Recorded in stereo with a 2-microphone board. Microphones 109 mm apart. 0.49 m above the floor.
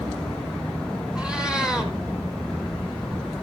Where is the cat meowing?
10° right (ahead or behind), 1.9 m.